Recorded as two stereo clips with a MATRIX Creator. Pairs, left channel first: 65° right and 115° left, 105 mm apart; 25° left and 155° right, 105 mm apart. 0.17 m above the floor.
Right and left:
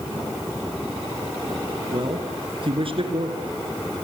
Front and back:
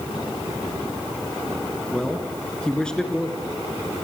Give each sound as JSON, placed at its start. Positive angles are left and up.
{"t": 1.9, "sound": "a man speaking", "azimuth_deg": 100, "distance_m": 2.0}